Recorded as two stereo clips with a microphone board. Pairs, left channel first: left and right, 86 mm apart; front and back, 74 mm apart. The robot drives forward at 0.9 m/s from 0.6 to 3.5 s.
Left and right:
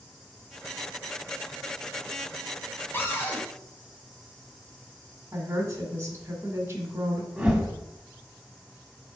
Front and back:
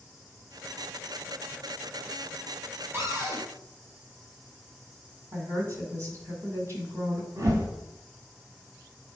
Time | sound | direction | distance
2.9 | a cupboard door | 145° left | 1.9 m
5.3 | a woman speaking | 145° right | 1.8 m
7.4 | a whoosh | 165° right | 1.3 m